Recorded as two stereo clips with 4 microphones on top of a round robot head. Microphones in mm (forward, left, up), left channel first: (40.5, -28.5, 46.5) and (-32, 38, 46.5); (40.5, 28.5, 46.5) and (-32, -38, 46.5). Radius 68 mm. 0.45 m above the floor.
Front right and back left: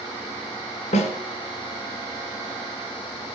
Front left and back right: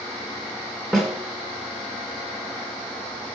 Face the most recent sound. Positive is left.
turn(degrees=-45)